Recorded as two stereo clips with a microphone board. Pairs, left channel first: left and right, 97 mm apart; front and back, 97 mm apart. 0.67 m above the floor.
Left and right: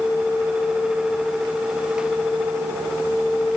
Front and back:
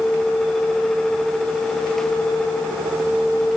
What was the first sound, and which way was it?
Only background noise.